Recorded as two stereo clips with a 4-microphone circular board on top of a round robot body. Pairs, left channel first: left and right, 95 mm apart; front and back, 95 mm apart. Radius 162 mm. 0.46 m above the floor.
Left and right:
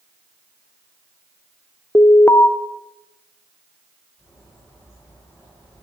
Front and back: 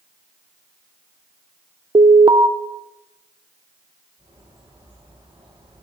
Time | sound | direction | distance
1.9 | an alarm | 155° left | 1.0 m
4.2 | a bird | 145° left | 7.5 m